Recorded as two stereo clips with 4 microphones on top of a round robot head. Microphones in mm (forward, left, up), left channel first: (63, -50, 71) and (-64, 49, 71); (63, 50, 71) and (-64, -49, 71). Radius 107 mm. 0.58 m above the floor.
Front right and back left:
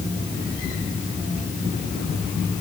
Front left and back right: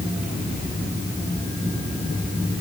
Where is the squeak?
I don't hear a squeak.